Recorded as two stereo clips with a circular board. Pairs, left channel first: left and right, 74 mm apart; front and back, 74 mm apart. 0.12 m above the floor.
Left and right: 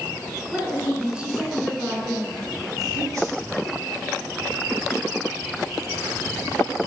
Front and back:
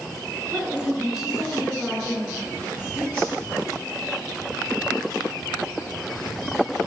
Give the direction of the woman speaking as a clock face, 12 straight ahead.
5 o'clock.